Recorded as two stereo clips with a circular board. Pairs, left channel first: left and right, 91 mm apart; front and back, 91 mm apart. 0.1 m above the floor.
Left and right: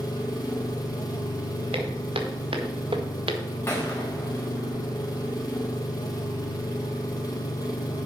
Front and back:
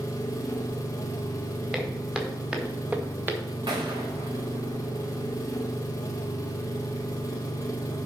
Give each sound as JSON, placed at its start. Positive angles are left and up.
{"t": 0.0, "sound": "an engine running", "azimuth_deg": 45, "distance_m": 1.8}
{"t": 1.7, "sound": "footsteps", "azimuth_deg": -95, "distance_m": 3.0}
{"t": 3.7, "sound": "a gunshot", "azimuth_deg": 155, "distance_m": 3.5}